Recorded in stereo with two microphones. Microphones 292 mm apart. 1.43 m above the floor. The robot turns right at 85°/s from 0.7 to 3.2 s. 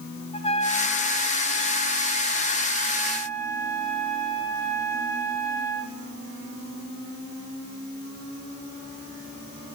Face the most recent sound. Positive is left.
turn(degrees=10)